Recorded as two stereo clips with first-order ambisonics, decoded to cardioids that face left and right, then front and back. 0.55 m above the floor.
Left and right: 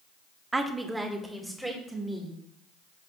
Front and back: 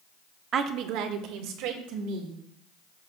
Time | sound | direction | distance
0.5 | a woman speaking | 160° right | 0.7 m